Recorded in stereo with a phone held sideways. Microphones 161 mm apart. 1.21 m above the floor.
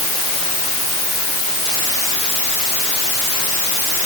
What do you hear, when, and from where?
Only background noise.